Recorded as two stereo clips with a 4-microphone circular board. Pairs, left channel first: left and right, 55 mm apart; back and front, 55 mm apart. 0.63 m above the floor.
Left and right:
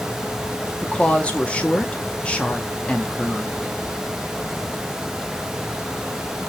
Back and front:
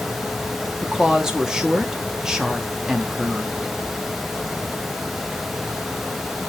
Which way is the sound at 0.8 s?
60° left.